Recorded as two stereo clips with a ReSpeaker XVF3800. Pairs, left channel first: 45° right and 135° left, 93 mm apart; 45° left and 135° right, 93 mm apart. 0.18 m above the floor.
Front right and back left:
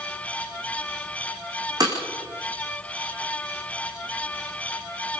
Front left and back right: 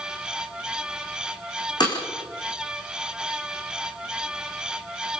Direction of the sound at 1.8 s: 85° left.